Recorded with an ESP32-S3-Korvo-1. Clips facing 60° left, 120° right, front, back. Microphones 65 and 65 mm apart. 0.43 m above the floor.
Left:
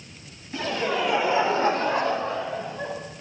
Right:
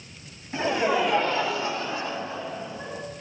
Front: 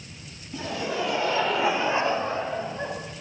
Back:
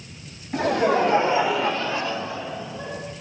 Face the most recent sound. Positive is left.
turn(degrees=35)